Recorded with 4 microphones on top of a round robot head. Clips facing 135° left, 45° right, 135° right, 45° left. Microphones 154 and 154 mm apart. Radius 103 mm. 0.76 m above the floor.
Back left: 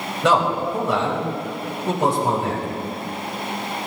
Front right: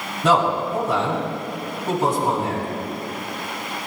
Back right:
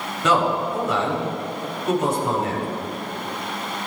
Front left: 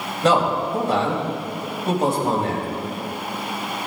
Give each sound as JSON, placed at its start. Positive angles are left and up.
{"t": 0.2, "sound": "a man speaking", "azimuth_deg": 105, "distance_m": 4.0}